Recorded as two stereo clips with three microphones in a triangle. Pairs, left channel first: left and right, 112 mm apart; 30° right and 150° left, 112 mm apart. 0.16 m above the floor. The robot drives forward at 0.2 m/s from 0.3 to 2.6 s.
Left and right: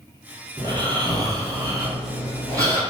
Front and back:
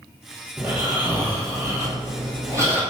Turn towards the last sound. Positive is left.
turn(degrees=-145)